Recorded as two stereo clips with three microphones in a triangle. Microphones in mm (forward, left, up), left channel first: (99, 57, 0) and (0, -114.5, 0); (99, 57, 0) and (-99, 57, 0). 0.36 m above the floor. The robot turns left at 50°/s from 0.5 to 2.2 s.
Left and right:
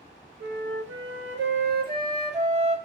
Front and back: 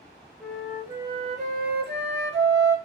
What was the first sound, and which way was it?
A flute, 85° right.